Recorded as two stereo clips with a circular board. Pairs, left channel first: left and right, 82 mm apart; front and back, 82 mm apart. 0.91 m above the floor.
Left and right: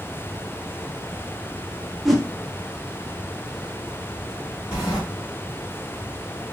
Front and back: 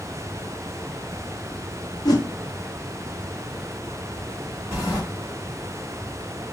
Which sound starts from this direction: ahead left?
A sliding door, at 4.7 s.